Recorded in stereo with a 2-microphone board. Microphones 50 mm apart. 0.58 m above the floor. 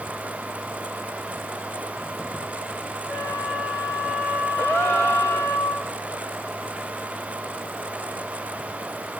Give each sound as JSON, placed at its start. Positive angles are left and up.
{"t": 3.1, "sound": "a flute", "side_deg": 55, "distance_m": 6.5}
{"t": 4.6, "sound": "a gasp", "side_deg": 25, "distance_m": 9.5}